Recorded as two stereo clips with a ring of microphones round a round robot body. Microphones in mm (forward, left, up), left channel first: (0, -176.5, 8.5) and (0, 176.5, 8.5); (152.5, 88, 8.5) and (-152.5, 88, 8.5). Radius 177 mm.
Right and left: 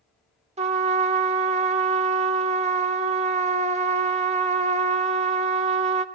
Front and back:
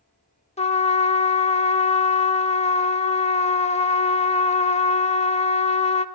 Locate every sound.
0.6 s a trumpet: 40° left, 0.6 m